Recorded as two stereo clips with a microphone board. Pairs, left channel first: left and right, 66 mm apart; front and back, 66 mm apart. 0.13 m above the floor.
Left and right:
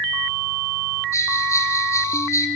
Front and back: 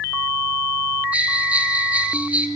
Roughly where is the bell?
Behind left.